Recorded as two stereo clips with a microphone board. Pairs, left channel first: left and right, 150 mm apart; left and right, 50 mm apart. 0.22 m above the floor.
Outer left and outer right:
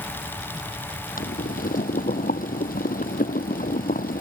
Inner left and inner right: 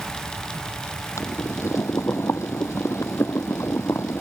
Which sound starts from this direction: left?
Boiling, at 1.2 s.